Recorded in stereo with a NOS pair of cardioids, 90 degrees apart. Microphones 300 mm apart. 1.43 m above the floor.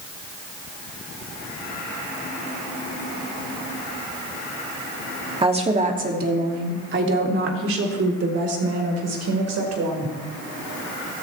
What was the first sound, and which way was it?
A woman speaking, 15° right.